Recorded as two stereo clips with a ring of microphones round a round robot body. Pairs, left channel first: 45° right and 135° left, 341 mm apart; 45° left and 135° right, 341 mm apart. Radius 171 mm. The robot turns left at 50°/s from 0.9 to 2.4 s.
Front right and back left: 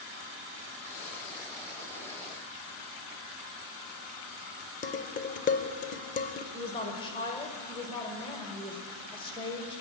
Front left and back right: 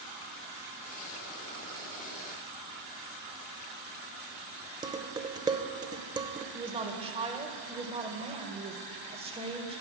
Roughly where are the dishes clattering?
Right.